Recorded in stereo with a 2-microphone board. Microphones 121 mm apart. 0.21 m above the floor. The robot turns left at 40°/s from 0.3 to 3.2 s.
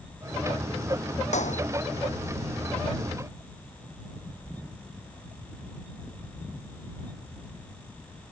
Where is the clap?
75° left (ahead or behind); by 1.6 s 85° left.